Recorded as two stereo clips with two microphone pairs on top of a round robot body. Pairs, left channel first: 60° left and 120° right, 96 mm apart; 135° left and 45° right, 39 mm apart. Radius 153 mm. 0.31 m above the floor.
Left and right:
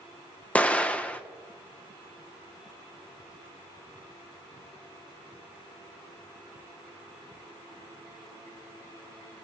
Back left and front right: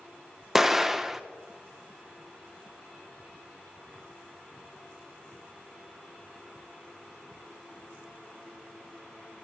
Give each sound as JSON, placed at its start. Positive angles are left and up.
{"t": 0.6, "sound": "an explosion", "azimuth_deg": 40, "distance_m": 1.2}